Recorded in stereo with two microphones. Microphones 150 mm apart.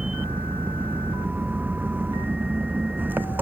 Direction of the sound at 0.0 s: 10° right (ahead or behind).